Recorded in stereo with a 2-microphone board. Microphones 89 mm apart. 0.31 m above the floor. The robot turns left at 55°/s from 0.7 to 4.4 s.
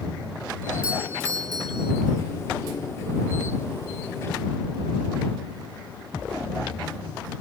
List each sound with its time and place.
0.8 s a doorbell: 15° right; by 1.9 s 75° right